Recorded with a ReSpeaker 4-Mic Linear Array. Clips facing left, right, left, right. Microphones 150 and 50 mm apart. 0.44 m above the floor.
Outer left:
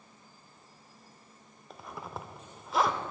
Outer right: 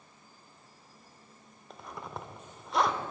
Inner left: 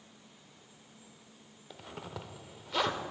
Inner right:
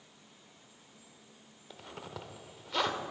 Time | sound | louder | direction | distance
1.7 | a zipper | even, inner left 1 dB | centre (ahead or behind) | 0.7 m